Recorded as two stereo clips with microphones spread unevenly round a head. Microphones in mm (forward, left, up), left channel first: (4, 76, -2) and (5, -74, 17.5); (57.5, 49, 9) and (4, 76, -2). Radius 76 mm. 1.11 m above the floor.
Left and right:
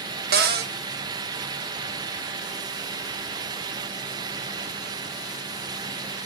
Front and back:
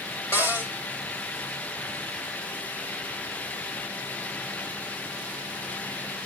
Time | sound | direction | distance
0.3 | a cupboard door | 85° right | 1.1 m